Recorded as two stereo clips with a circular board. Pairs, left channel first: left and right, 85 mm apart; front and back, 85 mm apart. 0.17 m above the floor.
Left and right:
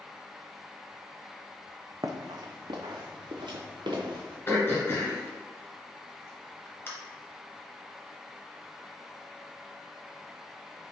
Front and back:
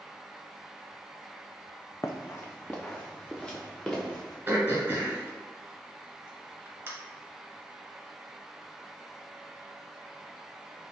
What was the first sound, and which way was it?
Running footsteps, 55° right.